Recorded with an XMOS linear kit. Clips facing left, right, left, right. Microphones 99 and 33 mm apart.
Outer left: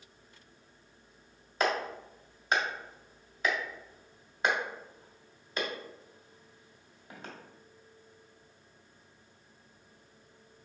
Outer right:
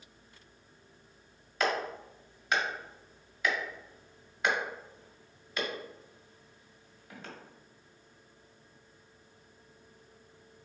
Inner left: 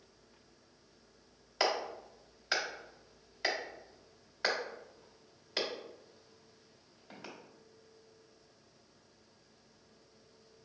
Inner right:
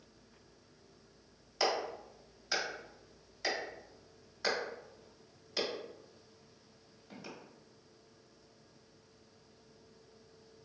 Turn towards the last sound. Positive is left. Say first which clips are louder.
# outer left 1 dB, inner left 1 dB
turn(degrees=30)  # may be behind; listen again after turning